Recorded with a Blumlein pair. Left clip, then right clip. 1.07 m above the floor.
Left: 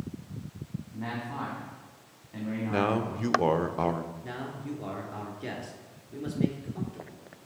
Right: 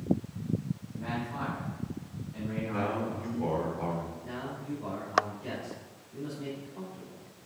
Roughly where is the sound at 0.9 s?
Ahead left.